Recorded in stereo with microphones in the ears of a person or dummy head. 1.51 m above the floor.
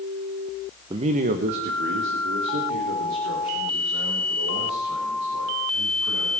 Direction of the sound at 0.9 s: 25° right (ahead or behind).